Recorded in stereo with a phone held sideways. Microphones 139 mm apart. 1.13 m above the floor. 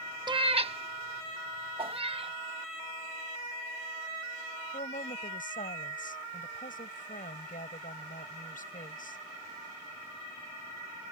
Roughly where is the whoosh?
Right.